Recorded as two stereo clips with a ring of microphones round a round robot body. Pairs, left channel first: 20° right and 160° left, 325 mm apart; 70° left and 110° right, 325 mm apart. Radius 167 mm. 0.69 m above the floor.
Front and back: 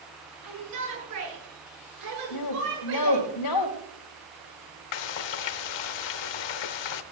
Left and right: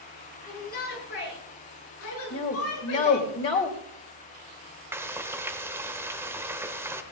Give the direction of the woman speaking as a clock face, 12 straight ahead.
12 o'clock.